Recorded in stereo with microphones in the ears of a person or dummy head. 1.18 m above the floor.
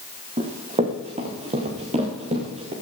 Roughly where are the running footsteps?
Right.